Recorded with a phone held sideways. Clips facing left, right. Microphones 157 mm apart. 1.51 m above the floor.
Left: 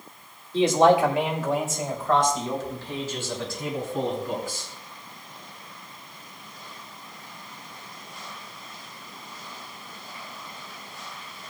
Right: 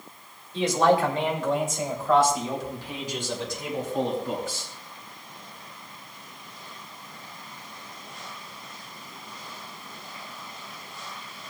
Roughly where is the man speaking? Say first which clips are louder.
Left 3 dB; left.